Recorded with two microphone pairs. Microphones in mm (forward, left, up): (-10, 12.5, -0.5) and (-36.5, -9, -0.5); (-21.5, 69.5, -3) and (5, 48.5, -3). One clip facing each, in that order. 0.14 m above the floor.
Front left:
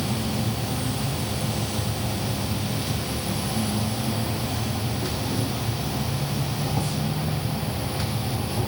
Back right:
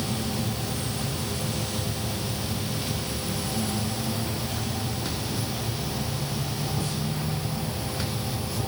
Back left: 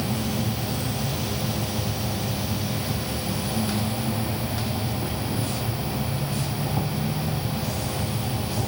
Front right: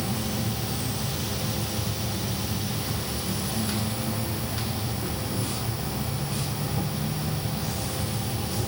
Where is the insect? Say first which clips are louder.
Front left 2 dB, back left 3 dB; 95° left, 1.0 m.